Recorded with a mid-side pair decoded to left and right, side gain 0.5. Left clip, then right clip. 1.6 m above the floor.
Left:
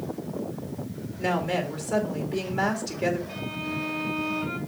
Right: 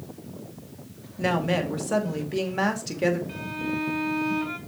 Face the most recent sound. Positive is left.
turn(degrees=-40)